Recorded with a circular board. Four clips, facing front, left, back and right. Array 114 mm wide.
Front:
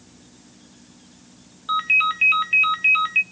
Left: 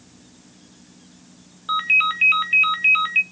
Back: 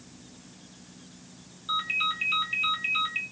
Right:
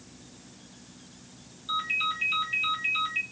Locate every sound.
1.7 s a ringtone: 55° left, 0.6 m